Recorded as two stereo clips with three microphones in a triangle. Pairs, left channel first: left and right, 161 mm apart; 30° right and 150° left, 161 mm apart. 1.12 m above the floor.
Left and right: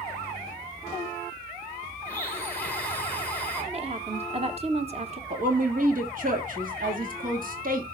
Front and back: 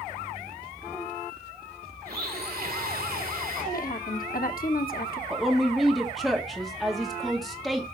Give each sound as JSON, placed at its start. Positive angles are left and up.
{"t": 2.0, "sound": "a blender", "azimuth_deg": 170, "distance_m": 1.9}
{"t": 3.7, "sound": "a woman speaking", "azimuth_deg": -45, "distance_m": 1.1}
{"t": 5.3, "sound": "a woman speaking", "azimuth_deg": -120, "distance_m": 1.6}